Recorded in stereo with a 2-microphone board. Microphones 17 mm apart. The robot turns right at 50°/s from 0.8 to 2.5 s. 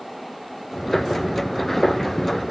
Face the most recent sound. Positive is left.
No sound to turn to.